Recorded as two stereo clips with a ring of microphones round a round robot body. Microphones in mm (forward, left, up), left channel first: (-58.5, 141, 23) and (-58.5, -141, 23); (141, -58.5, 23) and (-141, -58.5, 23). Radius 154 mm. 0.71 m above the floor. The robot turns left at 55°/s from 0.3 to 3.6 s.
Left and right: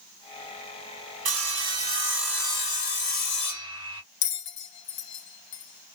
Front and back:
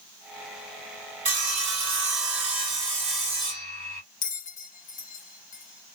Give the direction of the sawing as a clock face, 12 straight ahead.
4 o'clock.